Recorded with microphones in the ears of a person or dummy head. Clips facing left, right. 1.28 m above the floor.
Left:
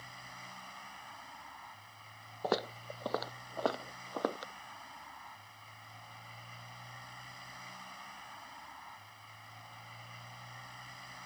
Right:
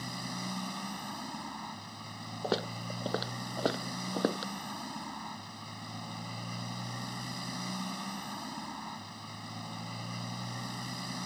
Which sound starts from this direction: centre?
Footsteps, at 2.4 s.